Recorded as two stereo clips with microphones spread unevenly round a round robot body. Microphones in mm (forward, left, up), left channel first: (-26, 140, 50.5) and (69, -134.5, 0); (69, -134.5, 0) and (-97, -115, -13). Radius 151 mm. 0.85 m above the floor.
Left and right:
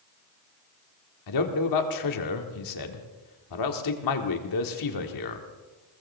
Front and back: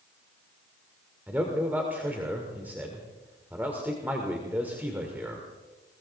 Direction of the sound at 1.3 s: 90° left.